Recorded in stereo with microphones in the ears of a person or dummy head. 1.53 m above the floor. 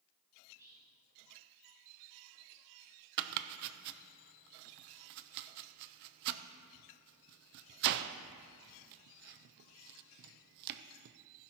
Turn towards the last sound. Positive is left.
turn(degrees=-60)  # may be behind; listen again after turning